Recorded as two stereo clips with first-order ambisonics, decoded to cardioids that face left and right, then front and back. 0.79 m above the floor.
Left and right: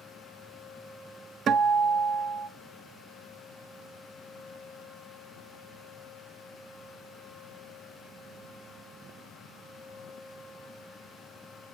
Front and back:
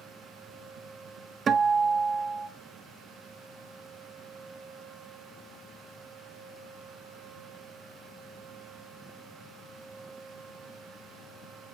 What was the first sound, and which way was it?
A guitar, 130° right.